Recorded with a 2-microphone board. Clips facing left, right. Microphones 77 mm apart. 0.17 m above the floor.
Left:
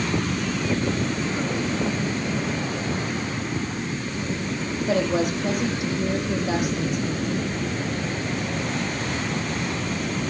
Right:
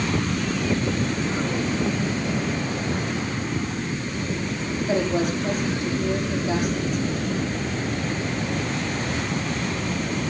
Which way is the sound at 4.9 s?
70° left (ahead or behind).